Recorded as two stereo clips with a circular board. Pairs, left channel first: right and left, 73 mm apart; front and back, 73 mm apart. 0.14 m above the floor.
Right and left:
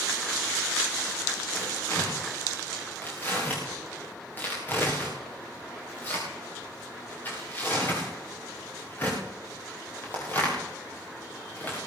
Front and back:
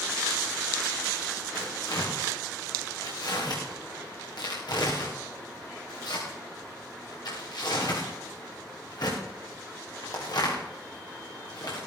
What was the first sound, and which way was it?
Tearing paper, 25° right.